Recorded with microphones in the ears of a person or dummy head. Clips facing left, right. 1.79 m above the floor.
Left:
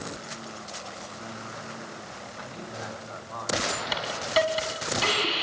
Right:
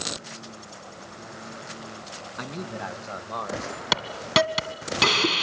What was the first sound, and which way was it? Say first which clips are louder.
A man speaking: right 6 dB; 65° right (ahead or behind).